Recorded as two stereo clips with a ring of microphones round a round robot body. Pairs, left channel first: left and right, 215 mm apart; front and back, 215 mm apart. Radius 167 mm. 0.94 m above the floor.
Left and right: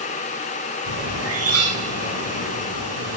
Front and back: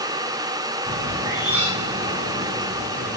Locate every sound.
0.9 s a bird: 95° right, 8 m